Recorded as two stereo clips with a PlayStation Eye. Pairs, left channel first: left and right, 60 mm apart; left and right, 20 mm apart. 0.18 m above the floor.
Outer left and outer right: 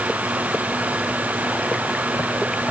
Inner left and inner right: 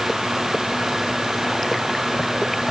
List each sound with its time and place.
Only background noise.